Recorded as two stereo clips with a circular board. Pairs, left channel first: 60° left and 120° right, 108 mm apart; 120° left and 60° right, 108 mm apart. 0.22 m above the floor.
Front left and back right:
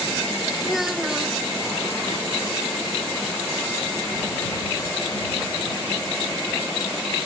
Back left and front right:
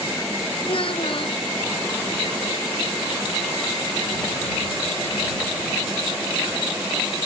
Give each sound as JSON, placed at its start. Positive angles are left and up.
{"t": 0.6, "sound": "a child speaking", "azimuth_deg": 155}